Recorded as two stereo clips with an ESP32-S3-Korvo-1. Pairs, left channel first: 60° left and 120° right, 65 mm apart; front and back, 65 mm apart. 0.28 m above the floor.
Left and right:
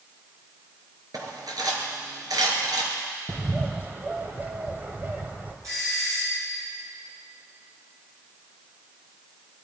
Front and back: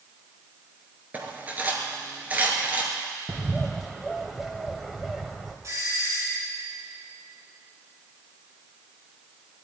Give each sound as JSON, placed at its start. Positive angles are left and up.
{"t": 1.1, "sound": "cutlery clinking", "azimuth_deg": -115, "distance_m": 3.0}
{"t": 3.3, "sound": "a bird", "azimuth_deg": -95, "distance_m": 1.3}
{"t": 5.6, "sound": "a doorbell", "azimuth_deg": -145, "distance_m": 4.0}